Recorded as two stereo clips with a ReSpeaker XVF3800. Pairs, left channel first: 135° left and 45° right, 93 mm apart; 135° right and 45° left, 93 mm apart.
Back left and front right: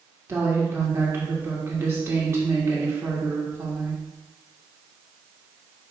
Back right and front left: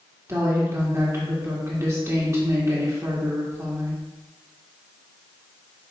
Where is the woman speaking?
Straight ahead, 1.5 m.